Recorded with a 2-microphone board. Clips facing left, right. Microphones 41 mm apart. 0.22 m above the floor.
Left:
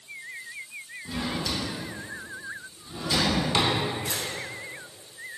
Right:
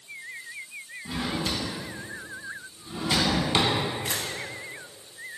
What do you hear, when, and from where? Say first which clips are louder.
1.1 s a drawer: right 1 dB; 30° right (ahead or behind), 0.5 m
4.0 s a camera shutter: right 1 dB; 50° right (ahead or behind), 0.5 m